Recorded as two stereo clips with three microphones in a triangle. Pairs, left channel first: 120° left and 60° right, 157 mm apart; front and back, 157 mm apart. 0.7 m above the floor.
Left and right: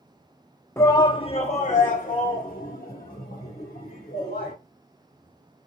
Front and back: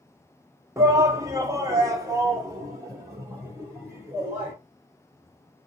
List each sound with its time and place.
0.8 s a shout: 155° left, 0.6 m; by 4.5 s 110° left, 2.5 m